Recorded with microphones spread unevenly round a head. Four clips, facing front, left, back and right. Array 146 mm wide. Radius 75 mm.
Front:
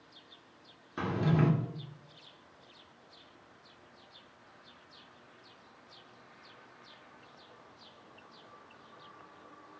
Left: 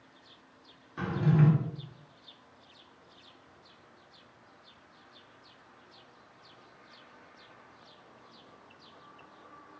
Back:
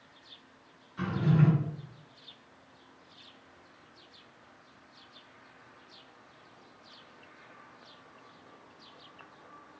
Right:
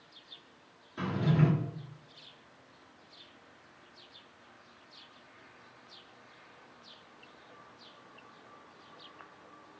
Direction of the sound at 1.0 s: 5° left.